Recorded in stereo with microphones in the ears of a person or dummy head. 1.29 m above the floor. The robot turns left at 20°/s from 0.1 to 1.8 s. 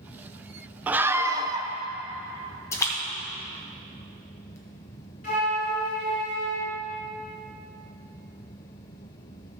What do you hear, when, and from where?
0.9 s a scream: 10° right (ahead or behind), 0.6 m; by 1.7 s 25° right (ahead or behind), 0.6 m
2.7 s a splash: 20° left (ahead or behind), 1.4 m
5.2 s a flute: 45° left (ahead or behind), 4 m